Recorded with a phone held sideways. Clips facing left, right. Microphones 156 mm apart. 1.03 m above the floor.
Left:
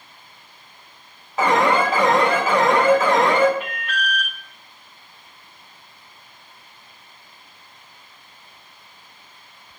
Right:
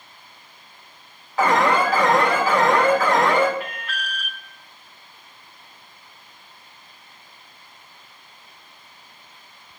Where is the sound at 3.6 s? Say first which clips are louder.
Left 4 dB; 20° left (ahead or behind), 2.5 m.